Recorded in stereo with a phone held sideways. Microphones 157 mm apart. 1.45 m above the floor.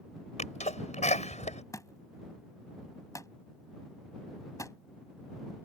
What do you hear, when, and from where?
0.4 s a sneeze: 50° left (ahead or behind)
1.7 s a thud: 20° left (ahead or behind)